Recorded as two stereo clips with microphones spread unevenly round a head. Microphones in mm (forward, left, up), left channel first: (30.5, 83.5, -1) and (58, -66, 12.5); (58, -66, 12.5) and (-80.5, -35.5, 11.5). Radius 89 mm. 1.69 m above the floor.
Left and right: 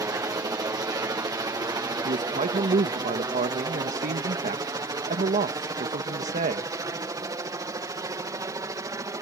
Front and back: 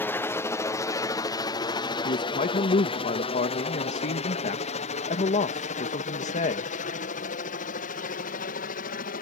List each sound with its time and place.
0.0 s a helicopter: 50° right; by 9.2 s 15° right
2.0 s a man speaking: 45° right